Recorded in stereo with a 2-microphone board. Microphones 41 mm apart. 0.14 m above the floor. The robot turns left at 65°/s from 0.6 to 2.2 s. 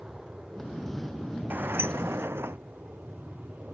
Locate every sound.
0.0 s an aircraft: 20° right (ahead or behind); by 3.8 s 50° right (ahead or behind)
1.5 s a sliding door: 50° right; by 2.6 s 95° right